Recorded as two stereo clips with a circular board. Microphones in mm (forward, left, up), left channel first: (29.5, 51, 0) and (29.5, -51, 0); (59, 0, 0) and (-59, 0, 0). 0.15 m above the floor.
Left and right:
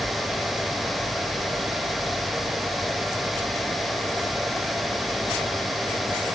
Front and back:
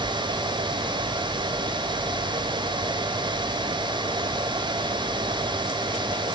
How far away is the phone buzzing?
I don't hear a phone buzzing.